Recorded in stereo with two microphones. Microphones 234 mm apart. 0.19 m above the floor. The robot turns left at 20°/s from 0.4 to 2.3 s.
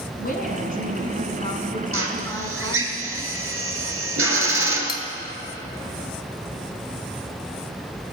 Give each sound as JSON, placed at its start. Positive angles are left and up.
{"t": 0.2, "sound": "a woman speaking", "azimuth_deg": 55, "distance_m": 1.7}
{"t": 1.9, "sound": "a drill", "side_deg": -70, "distance_m": 1.4}
{"t": 4.9, "sound": "cutlery clinking", "side_deg": 20, "distance_m": 0.7}